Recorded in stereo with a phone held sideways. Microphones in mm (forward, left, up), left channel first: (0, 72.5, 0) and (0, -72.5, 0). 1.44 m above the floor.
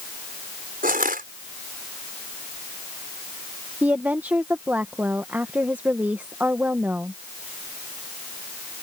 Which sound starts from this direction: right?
Crushing, at 0.8 s.